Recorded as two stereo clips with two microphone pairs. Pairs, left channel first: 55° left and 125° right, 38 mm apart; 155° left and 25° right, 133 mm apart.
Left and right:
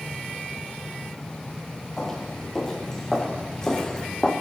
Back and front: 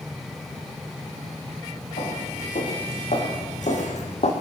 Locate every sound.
2.0 s footsteps: 135° left, 4 m; by 4.3 s 130° left, 2.5 m